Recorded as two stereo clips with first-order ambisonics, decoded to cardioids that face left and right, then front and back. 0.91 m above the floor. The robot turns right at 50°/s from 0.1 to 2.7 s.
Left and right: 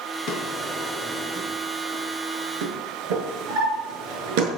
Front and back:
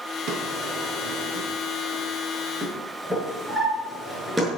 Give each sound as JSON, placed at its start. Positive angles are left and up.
{"t": 0.3, "sound": "a drawer", "azimuth_deg": 140, "distance_m": 6.0}